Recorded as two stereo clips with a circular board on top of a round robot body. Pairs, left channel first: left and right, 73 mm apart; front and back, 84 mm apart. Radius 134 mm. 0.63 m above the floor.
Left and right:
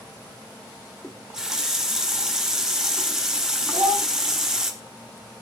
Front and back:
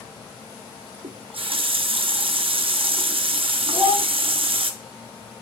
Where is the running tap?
175° right, 0.8 m.